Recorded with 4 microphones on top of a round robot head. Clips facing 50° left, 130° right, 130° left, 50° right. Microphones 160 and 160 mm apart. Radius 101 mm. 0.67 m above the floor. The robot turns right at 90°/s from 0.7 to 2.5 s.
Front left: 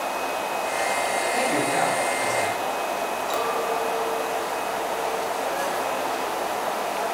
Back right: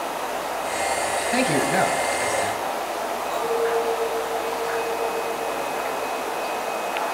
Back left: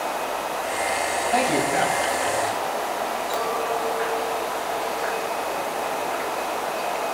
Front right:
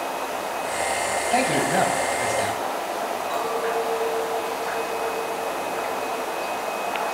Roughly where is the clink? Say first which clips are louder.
Back right 5 dB, front right 2 dB; left.